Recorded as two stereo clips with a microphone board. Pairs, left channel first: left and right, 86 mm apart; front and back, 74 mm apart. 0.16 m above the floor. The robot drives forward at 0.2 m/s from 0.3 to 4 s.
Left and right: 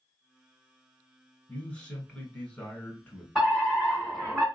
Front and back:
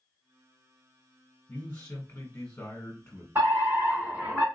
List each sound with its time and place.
1.5 s a man speaking: 30° left, 1.3 m; by 3.2 s 50° left, 1.1 m
3.4 s a fire alarm: 170° left, 2.5 m; by 4.5 s 175° left, 2.5 m